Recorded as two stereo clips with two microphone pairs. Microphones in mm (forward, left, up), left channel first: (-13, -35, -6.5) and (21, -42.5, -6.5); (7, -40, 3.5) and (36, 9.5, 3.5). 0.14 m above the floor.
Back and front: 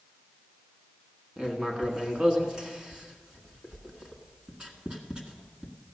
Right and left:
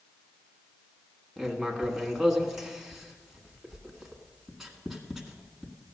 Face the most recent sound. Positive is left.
turn(degrees=-20)